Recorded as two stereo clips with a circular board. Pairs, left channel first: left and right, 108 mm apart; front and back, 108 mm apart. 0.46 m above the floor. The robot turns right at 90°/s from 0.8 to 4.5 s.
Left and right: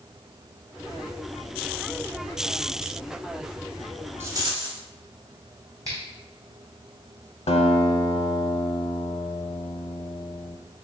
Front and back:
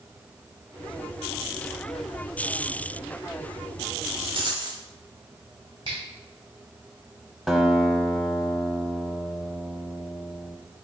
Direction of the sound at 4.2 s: 160° right.